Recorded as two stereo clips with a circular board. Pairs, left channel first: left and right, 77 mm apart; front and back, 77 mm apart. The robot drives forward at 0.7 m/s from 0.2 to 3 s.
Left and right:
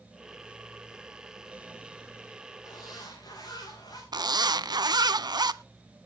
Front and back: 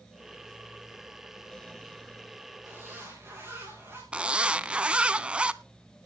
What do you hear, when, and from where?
2.6 s a zipper: 120° left, 6.5 m
4.1 s a zipper: 105° right, 0.6 m